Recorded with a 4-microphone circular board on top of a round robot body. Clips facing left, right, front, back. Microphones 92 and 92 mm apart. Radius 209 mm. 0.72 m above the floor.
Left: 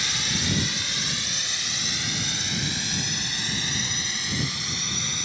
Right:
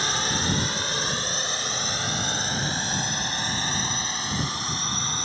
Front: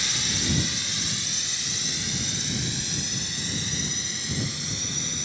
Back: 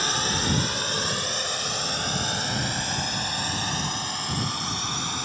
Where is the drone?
140° right; by 5.3 s 145° right.